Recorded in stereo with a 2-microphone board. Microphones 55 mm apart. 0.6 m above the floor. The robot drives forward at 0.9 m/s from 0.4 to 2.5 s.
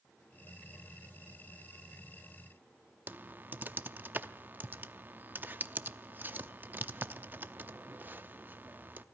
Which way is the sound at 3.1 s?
35° right (ahead or behind).